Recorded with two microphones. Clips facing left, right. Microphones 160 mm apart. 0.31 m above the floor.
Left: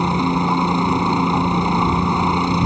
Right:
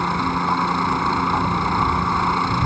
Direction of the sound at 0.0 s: 20° left (ahead or behind).